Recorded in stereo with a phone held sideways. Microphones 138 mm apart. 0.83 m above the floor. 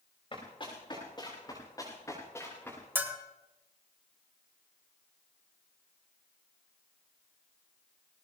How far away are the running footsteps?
About 7 m.